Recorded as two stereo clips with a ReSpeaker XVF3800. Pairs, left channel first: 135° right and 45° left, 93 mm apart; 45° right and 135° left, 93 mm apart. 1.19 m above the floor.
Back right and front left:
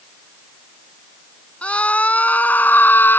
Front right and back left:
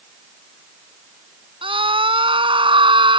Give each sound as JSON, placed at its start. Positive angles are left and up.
{"t": 1.6, "sound": "a scream", "azimuth_deg": 150}